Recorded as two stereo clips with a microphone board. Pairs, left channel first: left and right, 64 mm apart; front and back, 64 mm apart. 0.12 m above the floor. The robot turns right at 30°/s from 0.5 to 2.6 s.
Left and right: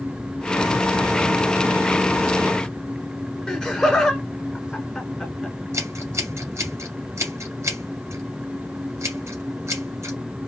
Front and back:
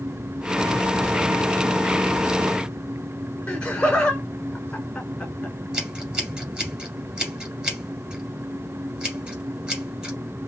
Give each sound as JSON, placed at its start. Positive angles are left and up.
{"t": 3.5, "sound": "laughter", "azimuth_deg": 35, "distance_m": 1.3}
{"t": 5.7, "sound": "scissors", "azimuth_deg": -105, "distance_m": 2.5}